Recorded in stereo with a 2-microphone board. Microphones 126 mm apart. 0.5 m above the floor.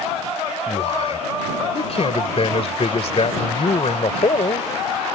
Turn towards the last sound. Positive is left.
turn(degrees=55)  # may be behind; listen again after turning